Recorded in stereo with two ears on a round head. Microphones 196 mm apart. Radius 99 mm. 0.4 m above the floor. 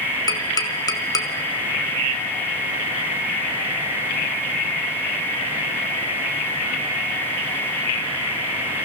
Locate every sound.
0.3 s tapping: 15° left (ahead or behind), 1.3 m